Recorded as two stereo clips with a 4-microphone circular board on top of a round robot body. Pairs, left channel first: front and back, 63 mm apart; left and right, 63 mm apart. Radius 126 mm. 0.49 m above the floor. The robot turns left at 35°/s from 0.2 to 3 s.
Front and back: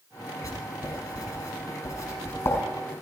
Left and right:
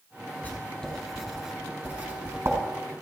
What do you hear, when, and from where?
0.4 s writing: 30° left, 5.5 m; by 2.6 s 45° right, 5.5 m